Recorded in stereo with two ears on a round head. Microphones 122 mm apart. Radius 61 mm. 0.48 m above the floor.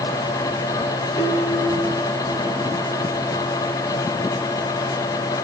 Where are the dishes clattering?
55° left (ahead or behind), 5 m.